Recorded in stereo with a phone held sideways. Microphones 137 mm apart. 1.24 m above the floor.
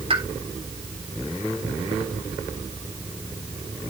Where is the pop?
45° right (ahead or behind), 3.5 m.